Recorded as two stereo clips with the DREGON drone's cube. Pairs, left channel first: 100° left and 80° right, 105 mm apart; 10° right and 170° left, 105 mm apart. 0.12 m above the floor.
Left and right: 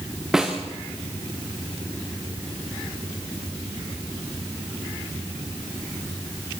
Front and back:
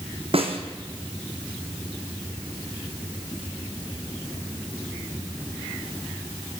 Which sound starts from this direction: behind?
A snare drum, at 0.3 s.